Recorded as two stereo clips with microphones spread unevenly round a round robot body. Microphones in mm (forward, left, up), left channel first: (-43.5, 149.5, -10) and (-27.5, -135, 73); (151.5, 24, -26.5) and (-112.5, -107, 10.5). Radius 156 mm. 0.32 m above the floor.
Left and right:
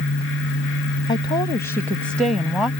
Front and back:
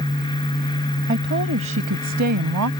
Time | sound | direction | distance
1.1 | a woman speaking | 150° left | ?